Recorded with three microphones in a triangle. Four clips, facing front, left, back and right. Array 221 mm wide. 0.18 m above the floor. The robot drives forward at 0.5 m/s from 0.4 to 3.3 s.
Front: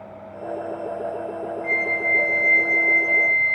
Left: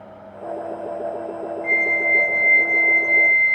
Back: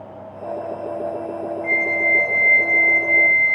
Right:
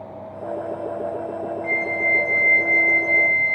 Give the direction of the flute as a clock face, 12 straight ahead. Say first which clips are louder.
Left 3 dB, back 3 dB; 5 o'clock.